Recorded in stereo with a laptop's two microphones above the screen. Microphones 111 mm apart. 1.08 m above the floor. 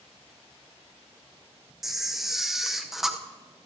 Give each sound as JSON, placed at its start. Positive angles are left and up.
{"t": 1.8, "sound": "a camera shutter", "side_deg": -5, "distance_m": 0.6}